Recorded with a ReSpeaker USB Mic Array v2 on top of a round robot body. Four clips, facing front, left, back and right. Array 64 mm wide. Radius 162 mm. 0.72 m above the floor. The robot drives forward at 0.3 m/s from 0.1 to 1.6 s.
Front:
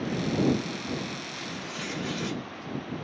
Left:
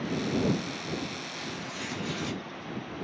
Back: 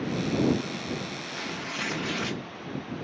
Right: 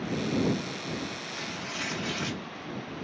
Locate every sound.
1.3 s tearing paper: 160° right, 0.6 m